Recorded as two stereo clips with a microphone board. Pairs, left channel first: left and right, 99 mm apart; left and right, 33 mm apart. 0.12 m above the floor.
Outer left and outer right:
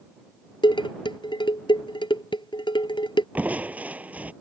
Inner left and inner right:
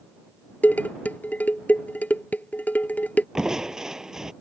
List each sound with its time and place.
0.6 s dishes clattering: 55° left (ahead or behind)
3.4 s crushing: 15° right (ahead or behind)